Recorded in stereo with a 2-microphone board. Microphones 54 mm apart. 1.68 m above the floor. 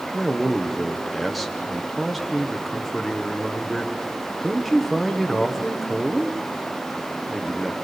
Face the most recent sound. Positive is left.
turn(degrees=0)  # may be behind; listen again after turning